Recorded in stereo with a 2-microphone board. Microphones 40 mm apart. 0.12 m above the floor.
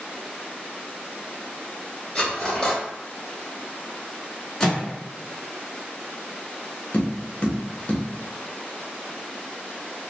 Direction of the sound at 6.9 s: 35° left (ahead or behind).